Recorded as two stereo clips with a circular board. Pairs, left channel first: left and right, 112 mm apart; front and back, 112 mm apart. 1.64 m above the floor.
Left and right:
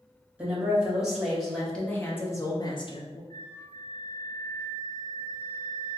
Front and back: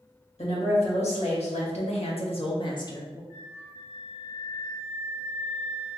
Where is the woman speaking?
10° right, 1.7 m; by 3.2 s 65° left, 0.7 m.